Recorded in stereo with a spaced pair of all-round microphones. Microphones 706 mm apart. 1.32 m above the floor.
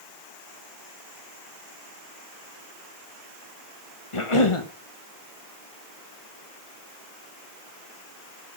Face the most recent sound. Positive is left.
turn(degrees=45)  # may be behind; listen again after turning